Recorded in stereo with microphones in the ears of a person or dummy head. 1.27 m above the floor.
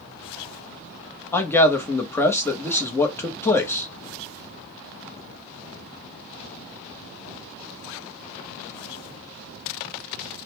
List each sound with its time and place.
1.3 s a man speaking: 15° left (ahead or behind), 1.0 m